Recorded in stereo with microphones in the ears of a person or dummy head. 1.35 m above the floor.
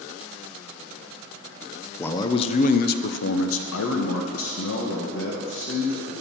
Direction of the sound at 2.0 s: 15° left (ahead or behind).